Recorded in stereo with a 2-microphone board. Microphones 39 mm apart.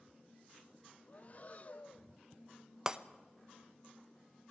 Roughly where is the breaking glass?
Centre.